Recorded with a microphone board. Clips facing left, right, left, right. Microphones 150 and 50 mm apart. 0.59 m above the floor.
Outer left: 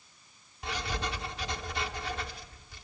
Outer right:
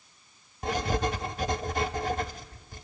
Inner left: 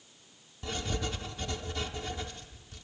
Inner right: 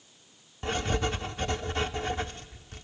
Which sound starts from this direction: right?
Writing, at 0.6 s.